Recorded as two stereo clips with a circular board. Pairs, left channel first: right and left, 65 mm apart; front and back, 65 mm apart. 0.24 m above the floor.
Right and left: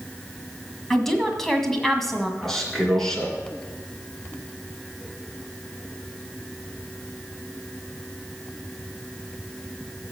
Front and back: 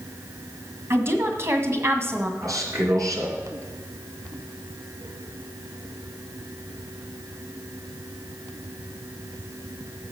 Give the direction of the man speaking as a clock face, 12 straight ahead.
6 o'clock.